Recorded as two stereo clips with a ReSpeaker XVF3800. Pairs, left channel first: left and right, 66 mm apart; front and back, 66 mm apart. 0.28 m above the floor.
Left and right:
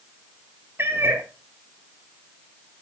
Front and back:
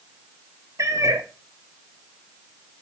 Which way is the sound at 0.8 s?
145° right.